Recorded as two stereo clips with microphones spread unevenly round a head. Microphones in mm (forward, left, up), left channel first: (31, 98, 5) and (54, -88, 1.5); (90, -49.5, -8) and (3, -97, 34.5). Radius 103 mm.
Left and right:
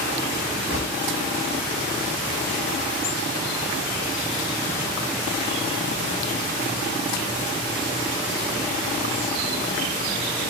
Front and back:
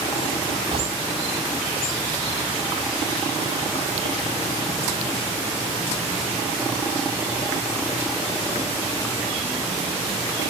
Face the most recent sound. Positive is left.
turn(degrees=-120)